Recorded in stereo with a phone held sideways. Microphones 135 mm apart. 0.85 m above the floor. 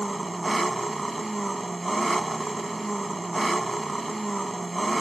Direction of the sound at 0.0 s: Centre (ahead or behind).